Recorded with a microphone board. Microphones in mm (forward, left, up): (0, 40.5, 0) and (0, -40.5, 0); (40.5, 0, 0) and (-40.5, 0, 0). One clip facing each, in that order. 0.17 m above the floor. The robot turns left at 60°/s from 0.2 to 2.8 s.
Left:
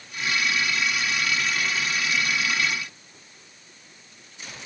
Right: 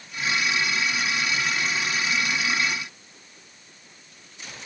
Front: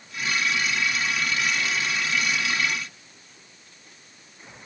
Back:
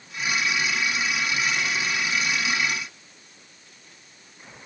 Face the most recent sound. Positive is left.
No sound to turn to.